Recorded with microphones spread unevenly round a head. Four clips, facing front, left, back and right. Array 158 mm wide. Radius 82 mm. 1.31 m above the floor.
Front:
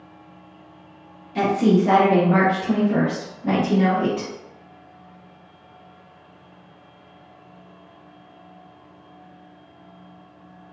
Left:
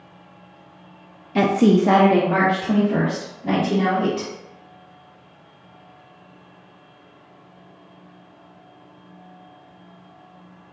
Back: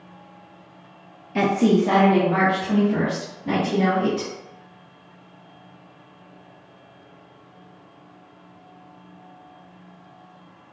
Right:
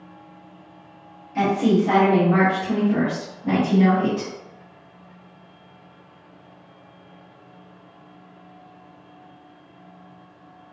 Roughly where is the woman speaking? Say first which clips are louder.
Left 3 dB, even; left.